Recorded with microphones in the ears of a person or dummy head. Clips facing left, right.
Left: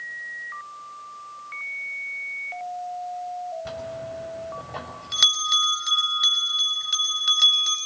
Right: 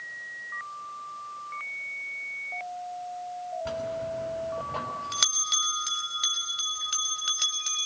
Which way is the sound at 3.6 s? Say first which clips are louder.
Right 2 dB; 15° left (ahead or behind).